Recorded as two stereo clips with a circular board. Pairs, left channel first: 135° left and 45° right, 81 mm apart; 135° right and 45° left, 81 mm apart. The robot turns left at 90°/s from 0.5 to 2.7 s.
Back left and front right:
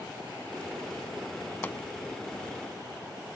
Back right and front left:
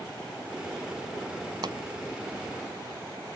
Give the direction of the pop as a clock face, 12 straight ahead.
10 o'clock.